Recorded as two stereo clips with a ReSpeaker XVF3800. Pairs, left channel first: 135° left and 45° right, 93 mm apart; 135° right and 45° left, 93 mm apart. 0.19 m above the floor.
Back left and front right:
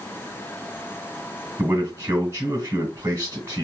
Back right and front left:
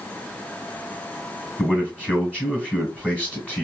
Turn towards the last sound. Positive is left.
turn(degrees=-70)